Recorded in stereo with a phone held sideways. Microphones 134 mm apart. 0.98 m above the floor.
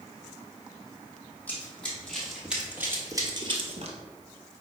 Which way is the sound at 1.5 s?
10° left (ahead or behind).